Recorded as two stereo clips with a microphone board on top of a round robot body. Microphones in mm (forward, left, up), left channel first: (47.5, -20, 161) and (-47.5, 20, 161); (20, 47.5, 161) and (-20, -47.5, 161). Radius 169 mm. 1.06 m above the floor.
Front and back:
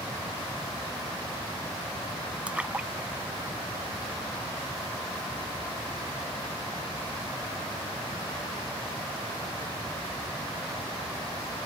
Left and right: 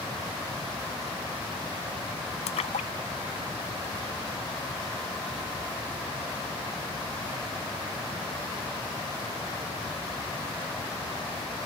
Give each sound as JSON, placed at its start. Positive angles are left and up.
{"t": 2.5, "sound": "a splash", "azimuth_deg": 80}